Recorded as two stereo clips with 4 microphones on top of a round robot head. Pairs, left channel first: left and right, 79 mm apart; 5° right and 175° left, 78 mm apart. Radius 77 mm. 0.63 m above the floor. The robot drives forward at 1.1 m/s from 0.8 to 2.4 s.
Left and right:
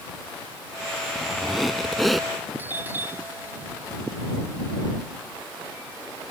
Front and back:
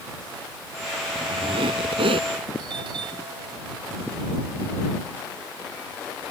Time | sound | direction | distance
1.1 | a squeak | straight behind | ?
2.6 | a doorbell | 155° right | ?